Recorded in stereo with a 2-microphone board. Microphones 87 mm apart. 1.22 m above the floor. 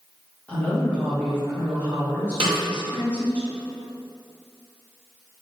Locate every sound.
0.5 s a woman speaking: 15° left (ahead or behind), 1.3 m
2.4 s a snare drum: 55° right (ahead or behind), 0.8 m